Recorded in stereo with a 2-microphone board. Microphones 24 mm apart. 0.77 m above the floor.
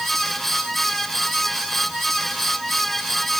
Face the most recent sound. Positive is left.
No sound to turn to.